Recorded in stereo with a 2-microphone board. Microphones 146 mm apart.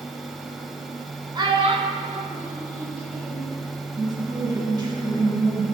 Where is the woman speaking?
30° right (ahead or behind), 1.1 m.